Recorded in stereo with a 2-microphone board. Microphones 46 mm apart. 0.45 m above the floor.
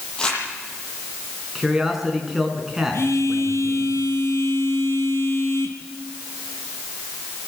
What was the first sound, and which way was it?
Crumpling, 15° left (ahead or behind).